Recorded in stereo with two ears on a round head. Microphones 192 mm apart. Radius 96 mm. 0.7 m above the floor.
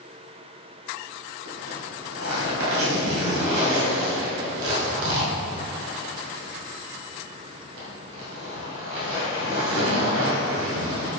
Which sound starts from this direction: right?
A zipper, at 1.4 s.